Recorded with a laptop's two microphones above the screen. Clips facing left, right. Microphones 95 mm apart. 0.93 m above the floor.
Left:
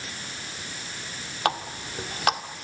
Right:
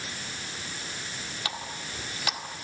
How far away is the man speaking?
No man speaking in this recording.